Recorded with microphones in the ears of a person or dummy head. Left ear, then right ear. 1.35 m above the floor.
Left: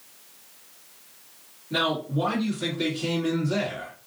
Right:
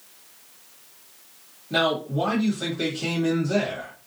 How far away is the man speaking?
About 1.3 m.